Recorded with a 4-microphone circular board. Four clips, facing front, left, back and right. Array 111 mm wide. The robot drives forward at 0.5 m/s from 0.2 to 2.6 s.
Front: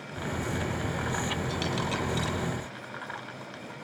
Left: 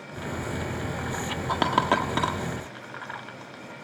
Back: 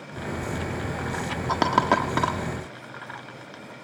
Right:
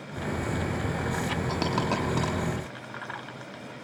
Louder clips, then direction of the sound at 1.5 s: Left 7 dB, back 10 dB; 150° left.